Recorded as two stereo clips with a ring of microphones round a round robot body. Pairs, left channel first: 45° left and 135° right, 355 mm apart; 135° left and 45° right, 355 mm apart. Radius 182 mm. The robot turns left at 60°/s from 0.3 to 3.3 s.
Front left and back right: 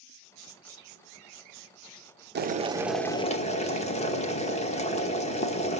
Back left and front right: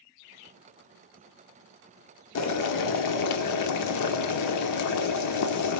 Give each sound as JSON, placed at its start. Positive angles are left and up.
{"t": 2.4, "sound": "boiling", "azimuth_deg": 170, "distance_m": 1.0}